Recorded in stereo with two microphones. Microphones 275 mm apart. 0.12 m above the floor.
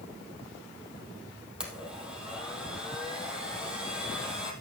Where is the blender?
5° right (ahead or behind), 3 m.